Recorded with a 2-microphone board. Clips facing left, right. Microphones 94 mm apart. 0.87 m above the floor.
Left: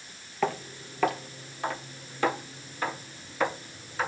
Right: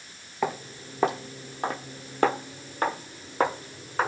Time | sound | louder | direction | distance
0.4 | footsteps | even | 15° right (ahead or behind) | 1.2 m